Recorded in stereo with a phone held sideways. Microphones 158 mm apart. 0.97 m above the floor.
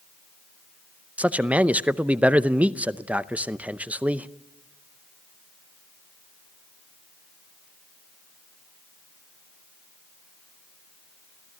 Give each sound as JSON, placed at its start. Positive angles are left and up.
{"t": 1.2, "sound": "a man speaking", "side_deg": -10, "distance_m": 0.6}